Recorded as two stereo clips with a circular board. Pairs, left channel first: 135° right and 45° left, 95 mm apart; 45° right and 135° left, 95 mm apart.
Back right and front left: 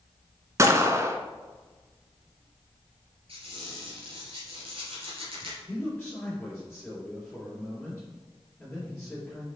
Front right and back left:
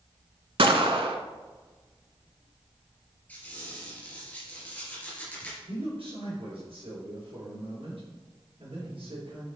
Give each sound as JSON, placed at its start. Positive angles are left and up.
{"t": 0.6, "sound": "a gunshot", "azimuth_deg": 105, "distance_m": 0.7}
{"t": 3.3, "sound": "a squeak", "azimuth_deg": 30, "distance_m": 2.5}
{"t": 5.7, "sound": "a man speaking", "azimuth_deg": 145, "distance_m": 3.0}